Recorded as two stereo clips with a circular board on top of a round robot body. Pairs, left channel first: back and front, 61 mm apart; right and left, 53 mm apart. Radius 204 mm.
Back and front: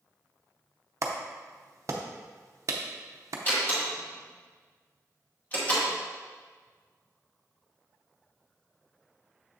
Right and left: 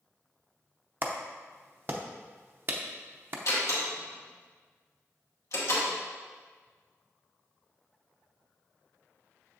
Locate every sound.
1.0 s a clap: 40° left, 0.6 m
3.5 s a door slam: 115° right, 2 m